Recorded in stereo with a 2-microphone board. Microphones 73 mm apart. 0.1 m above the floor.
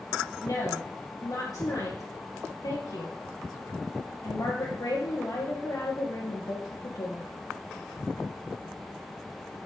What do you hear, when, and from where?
0.4 s a woman speaking: 55° left (ahead or behind), 2.5 m